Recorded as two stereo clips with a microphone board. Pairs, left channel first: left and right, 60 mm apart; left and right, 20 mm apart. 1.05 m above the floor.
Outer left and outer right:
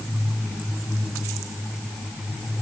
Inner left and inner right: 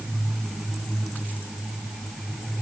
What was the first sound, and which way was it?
Only background noise.